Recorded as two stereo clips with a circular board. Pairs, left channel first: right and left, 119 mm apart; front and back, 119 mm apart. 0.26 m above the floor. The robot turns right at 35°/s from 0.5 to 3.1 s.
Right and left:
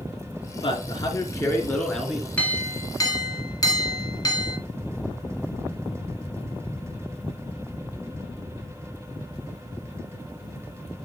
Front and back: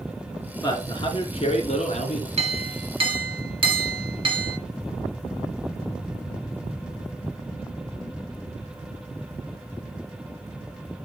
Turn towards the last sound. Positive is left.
turn(degrees=-145)